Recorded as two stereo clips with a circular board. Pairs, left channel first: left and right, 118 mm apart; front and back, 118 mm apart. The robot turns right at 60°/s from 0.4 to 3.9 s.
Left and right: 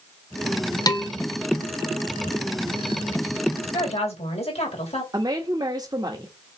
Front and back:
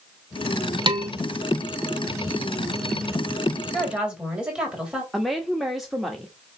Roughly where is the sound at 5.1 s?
Right.